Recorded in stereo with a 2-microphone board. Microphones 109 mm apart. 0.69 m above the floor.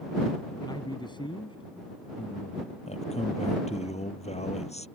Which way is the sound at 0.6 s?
40° left (ahead or behind).